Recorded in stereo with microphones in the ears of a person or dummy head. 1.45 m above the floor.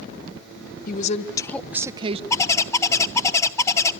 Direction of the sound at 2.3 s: 20° left (ahead or behind).